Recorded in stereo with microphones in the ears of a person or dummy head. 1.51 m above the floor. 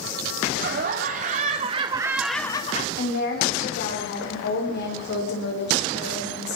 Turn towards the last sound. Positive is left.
turn(degrees=65)  # may be behind; listen again after turning